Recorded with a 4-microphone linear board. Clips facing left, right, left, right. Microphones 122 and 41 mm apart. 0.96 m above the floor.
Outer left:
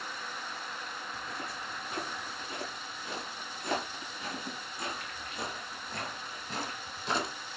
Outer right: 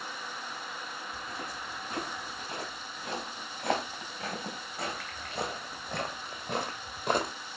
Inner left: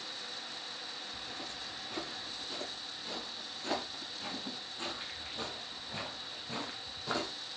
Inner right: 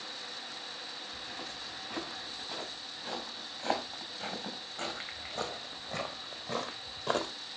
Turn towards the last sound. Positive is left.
turn(degrees=-55)  # may be behind; listen again after turning